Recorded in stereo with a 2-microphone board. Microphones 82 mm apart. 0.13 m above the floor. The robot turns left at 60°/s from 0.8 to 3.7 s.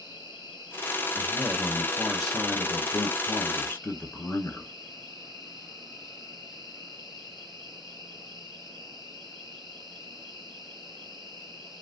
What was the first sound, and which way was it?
An insect, 130° right.